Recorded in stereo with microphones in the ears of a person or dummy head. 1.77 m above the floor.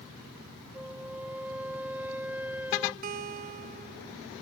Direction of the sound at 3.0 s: 40° right (ahead or behind).